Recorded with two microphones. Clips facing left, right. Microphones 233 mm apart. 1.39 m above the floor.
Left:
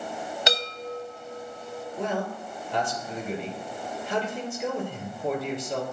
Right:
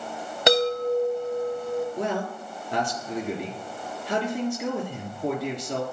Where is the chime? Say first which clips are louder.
Right 13 dB; 55° right (ahead or behind), 0.9 m.